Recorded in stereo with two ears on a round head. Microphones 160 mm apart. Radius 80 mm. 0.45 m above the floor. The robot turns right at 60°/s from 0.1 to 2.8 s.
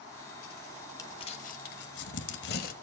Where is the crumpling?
20° left (ahead or behind), 1.3 m; by 2.7 s 50° left (ahead or behind), 1.3 m.